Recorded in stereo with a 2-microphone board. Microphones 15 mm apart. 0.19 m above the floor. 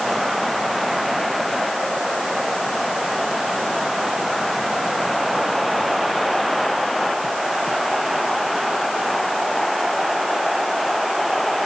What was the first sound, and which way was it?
Only background noise.